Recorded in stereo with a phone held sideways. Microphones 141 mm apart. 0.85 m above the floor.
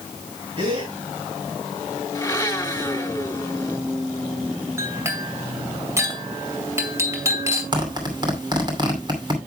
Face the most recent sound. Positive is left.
turn(degrees=-30)  # may be behind; listen again after turning